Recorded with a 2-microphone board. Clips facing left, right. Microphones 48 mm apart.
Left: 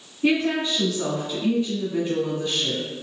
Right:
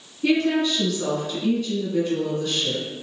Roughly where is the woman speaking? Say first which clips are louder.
Right 1 dB; left.